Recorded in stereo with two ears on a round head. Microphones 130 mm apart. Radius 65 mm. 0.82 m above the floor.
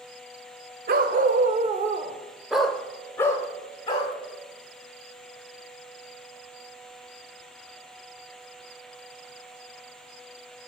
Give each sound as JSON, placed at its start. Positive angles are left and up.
{"t": 0.9, "sound": "a dog barking", "side_deg": -65, "distance_m": 0.9}